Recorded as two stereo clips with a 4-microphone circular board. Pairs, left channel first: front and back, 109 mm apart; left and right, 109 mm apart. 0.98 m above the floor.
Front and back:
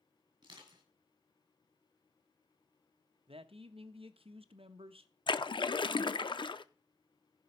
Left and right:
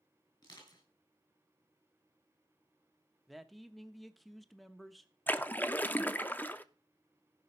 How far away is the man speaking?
About 0.9 m.